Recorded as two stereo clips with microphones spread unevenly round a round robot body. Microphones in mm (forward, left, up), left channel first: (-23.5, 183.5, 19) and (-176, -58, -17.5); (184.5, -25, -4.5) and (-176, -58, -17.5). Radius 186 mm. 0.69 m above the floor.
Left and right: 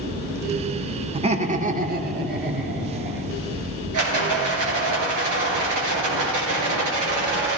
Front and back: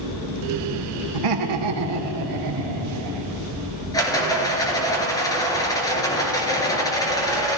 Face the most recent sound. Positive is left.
turn(degrees=-75)